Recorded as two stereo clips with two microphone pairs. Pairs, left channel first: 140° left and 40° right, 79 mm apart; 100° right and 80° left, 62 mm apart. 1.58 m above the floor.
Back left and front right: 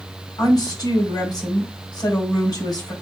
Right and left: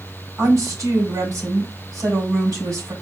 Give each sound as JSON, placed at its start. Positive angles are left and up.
{"t": 0.4, "sound": "a woman speaking", "azimuth_deg": 115, "distance_m": 3.5}